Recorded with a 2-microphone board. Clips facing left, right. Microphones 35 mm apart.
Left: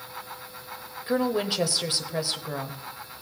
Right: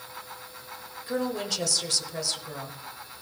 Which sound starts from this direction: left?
A woman speaking, at 1.1 s.